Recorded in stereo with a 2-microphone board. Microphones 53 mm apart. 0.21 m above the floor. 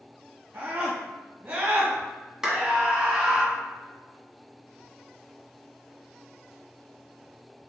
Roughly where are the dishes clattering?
No dishes clattering in this recording.